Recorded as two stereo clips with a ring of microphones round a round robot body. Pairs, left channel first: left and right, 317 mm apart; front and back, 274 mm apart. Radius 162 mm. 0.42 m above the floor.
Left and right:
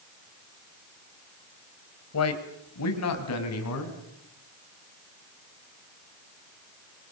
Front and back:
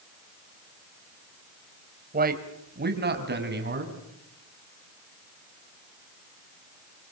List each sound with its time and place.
2.1 s a man speaking: 125° left, 3 m; by 4.0 s 130° left, 5.5 m